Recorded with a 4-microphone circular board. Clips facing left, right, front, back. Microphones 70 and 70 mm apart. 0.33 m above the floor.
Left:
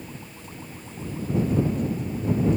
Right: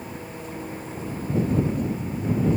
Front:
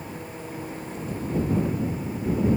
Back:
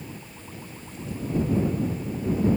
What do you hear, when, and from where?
0.0 s an engine running: 45° right